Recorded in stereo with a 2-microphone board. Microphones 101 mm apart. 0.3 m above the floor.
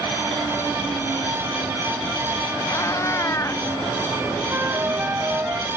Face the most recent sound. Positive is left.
turn(degrees=-20)  # may be behind; listen again after turning